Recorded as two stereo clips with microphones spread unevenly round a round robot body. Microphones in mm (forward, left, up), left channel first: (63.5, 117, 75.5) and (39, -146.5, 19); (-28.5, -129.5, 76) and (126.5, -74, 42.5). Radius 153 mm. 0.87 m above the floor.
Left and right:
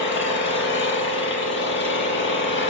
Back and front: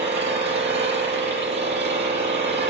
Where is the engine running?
45° left, 6.5 m.